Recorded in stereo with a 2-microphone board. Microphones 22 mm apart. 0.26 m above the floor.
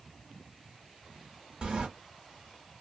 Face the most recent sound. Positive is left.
turn(degrees=-40)  # may be behind; listen again after turning